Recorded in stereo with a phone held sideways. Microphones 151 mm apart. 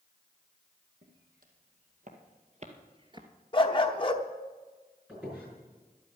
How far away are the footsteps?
About 3 m.